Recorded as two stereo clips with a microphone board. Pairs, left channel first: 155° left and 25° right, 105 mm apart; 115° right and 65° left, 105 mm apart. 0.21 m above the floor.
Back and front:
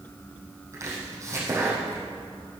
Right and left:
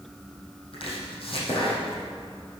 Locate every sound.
0.7 s chopping: 85° right, 4.5 m